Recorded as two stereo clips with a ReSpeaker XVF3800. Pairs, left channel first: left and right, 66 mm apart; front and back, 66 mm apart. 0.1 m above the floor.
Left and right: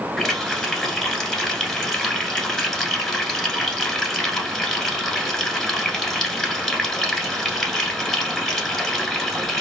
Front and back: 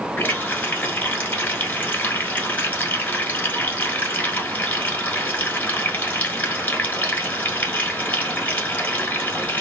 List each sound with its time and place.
0.2 s a running tap: 15° left, 1.1 m